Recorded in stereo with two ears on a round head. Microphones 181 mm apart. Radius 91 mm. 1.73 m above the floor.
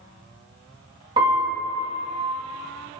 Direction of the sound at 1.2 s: 25° right (ahead or behind).